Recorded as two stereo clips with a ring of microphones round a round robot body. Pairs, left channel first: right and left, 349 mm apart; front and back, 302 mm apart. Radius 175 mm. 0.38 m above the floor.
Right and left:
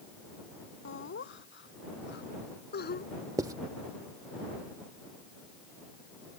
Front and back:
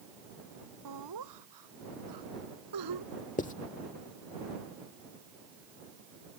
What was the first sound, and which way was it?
Laughter, 145° right.